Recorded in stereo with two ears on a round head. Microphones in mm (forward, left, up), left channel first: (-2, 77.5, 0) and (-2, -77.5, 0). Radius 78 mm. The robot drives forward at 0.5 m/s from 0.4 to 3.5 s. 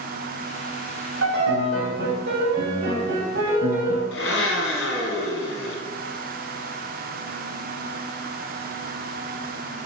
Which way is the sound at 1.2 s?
80° right.